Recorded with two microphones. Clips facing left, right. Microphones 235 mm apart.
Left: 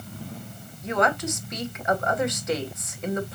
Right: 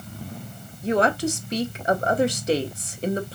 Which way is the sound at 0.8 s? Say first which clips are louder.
Right 4 dB; 35° right (ahead or behind).